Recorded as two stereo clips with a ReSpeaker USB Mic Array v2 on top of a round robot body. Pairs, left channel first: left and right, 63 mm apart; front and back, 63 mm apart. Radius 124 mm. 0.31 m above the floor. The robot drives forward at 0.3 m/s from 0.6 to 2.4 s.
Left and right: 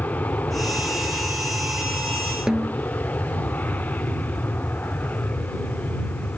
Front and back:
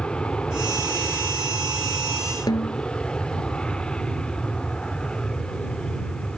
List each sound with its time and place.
0.0 s an aircraft: 60° left
2.5 s a snare drum: 10° right